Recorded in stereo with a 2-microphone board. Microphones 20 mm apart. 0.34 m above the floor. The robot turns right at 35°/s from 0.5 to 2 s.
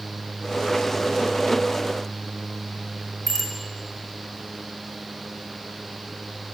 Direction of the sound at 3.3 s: 5° right (ahead or behind).